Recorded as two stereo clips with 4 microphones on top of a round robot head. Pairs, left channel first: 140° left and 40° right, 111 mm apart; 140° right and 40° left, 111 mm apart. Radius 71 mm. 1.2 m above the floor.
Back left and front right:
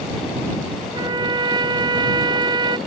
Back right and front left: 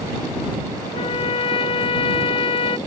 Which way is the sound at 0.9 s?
95° right.